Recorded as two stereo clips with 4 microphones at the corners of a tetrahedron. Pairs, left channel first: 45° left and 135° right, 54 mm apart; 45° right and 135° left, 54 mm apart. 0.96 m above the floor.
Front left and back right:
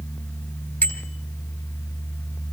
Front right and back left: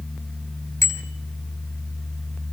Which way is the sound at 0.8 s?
15° right.